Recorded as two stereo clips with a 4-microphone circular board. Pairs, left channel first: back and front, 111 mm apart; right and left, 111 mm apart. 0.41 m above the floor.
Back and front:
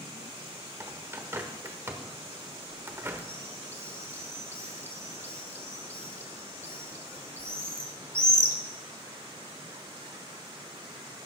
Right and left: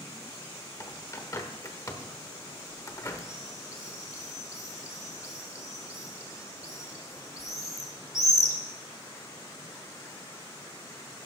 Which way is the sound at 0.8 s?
50° right.